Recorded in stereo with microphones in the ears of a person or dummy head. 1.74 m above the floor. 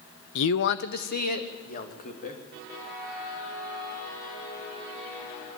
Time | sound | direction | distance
0.3 | a man speaking | 80° left | 0.8 m